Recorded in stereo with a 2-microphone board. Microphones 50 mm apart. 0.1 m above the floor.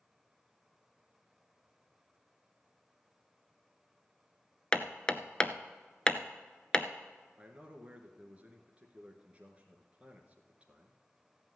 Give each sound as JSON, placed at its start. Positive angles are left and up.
{"t": 4.7, "sound": "hammering", "side_deg": 20, "distance_m": 0.5}
{"t": 7.4, "sound": "a man speaking", "side_deg": -25, "distance_m": 1.5}